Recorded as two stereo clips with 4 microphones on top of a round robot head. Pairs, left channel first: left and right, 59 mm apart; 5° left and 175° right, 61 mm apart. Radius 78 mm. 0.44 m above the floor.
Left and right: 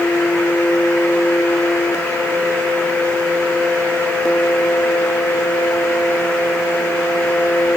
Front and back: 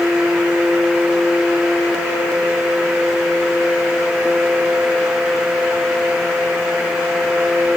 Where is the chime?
No chime in this recording.